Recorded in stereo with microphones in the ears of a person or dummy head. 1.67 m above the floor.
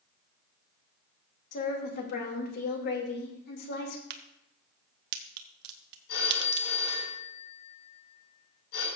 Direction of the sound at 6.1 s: 70° left (ahead or behind).